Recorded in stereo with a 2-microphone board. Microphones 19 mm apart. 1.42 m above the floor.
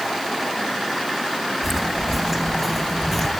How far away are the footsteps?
About 2.5 m.